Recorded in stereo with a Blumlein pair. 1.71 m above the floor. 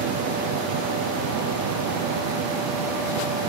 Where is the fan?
45° right, 0.9 m.